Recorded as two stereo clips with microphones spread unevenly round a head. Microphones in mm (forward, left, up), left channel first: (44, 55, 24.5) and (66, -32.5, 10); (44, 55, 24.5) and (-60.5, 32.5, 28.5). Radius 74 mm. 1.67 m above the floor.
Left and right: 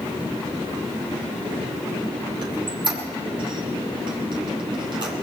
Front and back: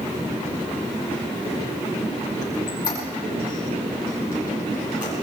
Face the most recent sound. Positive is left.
turn(degrees=-50)